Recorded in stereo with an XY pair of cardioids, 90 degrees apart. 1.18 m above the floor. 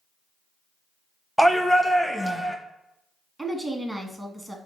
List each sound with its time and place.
1.4 s a shout: 5° right, 0.7 m
3.4 s a woman speaking: 15° right, 1.0 m